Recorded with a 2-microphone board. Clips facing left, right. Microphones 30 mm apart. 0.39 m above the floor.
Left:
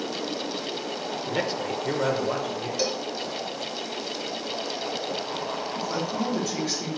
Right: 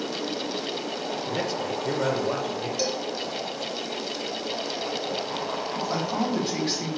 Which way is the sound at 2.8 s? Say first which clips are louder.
Left 1 dB; 10° left (ahead or behind).